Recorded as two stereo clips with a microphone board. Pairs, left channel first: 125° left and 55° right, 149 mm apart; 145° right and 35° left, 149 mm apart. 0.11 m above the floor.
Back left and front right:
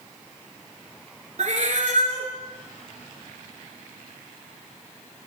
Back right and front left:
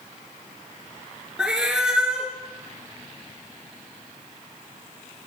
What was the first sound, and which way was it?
A cat meowing, 50° right.